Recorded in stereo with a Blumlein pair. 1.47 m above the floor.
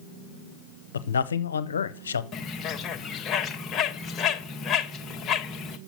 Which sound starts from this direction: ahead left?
A bird, at 2.3 s.